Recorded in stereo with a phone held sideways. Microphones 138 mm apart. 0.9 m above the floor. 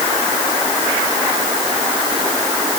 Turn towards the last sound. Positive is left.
No sound to turn to.